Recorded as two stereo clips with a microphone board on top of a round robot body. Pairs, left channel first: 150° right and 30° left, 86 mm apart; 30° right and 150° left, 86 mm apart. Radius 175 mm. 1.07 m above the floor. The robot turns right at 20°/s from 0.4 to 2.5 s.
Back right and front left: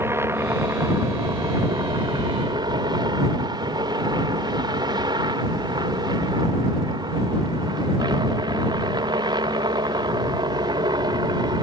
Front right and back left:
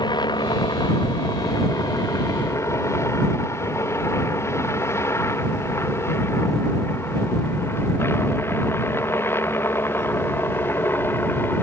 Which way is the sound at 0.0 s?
25° right.